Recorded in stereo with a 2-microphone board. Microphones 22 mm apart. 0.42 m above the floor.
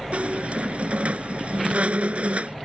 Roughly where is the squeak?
Right.